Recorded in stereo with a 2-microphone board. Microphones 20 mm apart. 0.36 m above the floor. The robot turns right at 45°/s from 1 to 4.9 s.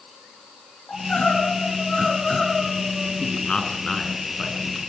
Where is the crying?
85° left, 6.5 m; by 3.1 s straight behind, 6.5 m.